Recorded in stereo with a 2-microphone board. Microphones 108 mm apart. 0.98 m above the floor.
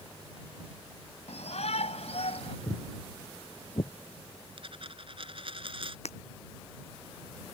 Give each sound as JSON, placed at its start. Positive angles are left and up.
{"t": 1.3, "sound": "a shout", "side_deg": 80}
{"t": 2.7, "sound": "footsteps", "side_deg": 20}
{"t": 4.6, "sound": "a dropped coin", "side_deg": -55}
{"t": 6.0, "sound": "breaking glass", "side_deg": 80}